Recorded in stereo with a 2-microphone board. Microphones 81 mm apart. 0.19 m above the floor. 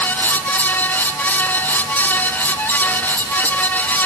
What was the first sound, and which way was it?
Only background noise.